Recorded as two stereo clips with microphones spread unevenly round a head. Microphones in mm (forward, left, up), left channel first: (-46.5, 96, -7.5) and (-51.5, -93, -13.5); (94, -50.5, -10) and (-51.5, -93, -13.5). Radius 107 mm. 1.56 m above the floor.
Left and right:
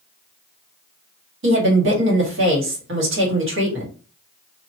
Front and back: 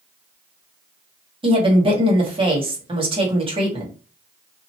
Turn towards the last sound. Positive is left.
turn(degrees=-110)